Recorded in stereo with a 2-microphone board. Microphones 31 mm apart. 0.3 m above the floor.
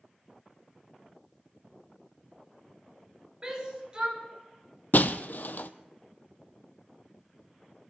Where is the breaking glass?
70° left (ahead or behind), 0.6 m.